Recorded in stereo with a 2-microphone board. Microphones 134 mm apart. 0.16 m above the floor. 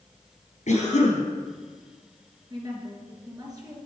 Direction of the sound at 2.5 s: 30° right (ahead or behind).